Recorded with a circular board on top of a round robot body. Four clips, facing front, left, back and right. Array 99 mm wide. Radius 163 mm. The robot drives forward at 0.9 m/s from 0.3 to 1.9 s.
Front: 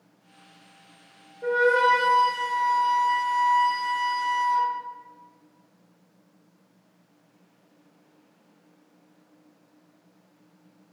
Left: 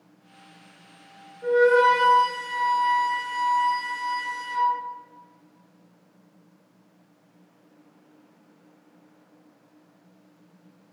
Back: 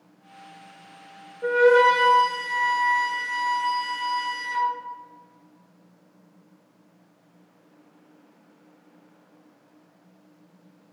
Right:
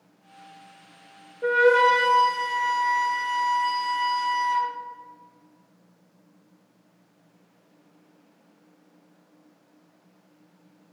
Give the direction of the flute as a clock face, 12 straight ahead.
3 o'clock.